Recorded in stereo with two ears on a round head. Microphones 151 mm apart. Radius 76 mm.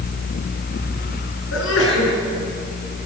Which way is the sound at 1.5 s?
80° left.